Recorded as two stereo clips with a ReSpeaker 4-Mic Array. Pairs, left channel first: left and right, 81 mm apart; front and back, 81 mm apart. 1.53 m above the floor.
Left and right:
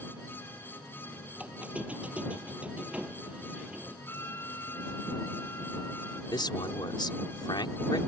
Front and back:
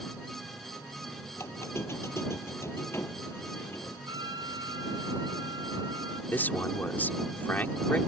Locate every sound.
1.4 s a squeak: 25° right
4.1 s a trumpet: 150° left
6.3 s a man speaking: 70° left